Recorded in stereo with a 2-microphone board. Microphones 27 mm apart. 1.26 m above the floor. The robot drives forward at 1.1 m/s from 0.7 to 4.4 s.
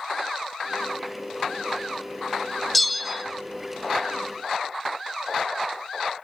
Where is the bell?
5° left (ahead or behind), 0.7 m; by 3.2 s centre (ahead or behind), 1.0 m.